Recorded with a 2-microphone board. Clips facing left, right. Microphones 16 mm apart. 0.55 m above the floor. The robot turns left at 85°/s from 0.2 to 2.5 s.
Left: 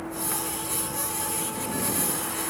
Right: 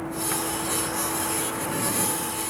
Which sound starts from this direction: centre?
A vehicle, at 0.0 s.